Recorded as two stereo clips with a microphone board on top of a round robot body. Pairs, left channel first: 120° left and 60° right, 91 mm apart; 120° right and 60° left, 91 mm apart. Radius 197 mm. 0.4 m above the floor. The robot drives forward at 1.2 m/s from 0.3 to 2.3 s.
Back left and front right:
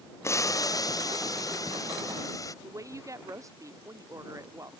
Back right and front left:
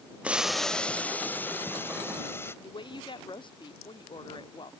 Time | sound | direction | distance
0.2 | boiling | 125° left | ?
2.6 | a woman speaking | 110° right | ?